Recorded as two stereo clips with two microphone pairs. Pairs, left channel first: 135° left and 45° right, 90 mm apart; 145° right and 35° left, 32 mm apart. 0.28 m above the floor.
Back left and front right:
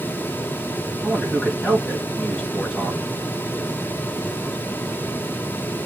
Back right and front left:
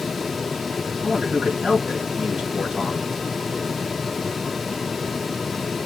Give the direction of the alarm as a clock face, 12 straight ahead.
I don't hear an alarm.